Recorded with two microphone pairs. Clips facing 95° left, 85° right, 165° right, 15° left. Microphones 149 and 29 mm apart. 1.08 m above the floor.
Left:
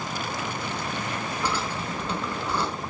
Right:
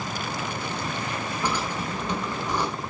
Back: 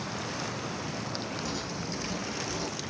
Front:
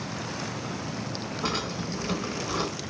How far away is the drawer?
About 3.5 m.